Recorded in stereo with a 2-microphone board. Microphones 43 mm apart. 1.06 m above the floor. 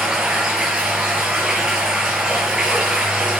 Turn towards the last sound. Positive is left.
turn(degrees=-20)  # may be behind; listen again after turning